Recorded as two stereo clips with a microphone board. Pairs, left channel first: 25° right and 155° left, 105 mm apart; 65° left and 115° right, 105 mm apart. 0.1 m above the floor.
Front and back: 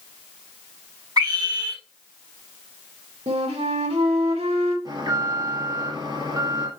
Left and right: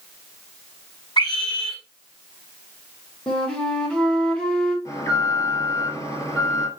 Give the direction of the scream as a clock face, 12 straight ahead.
8 o'clock.